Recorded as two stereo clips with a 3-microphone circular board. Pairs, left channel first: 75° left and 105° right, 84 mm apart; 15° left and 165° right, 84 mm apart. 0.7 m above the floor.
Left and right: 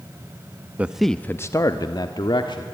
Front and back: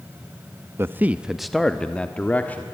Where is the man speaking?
155° right, 0.6 m; by 2.6 s 85° left, 1.5 m.